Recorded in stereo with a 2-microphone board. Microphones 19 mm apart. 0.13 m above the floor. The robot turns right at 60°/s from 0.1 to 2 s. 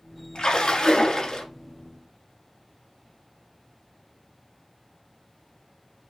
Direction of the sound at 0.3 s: 65° left.